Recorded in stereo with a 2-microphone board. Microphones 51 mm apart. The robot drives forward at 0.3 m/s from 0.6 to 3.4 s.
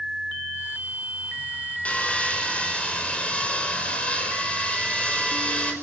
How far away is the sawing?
About 4 m.